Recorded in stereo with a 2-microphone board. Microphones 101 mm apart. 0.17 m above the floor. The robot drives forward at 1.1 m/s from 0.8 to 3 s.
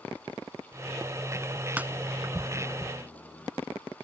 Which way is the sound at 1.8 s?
15° right (ahead or behind).